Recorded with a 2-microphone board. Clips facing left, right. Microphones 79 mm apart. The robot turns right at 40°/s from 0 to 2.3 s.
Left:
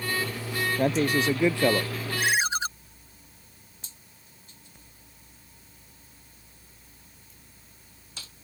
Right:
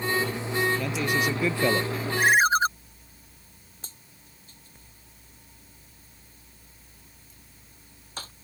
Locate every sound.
0.8 s a man speaking: 130° left; by 1.9 s 175° left
2.2 s a ringtone: 40° right (ahead or behind); by 2.7 s 45° right (ahead or behind)
3.8 s a dropped coin: 45° right (ahead or behind)